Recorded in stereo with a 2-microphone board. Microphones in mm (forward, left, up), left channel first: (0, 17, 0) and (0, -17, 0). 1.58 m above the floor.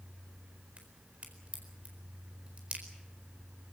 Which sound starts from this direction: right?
A crack, at 0.8 s.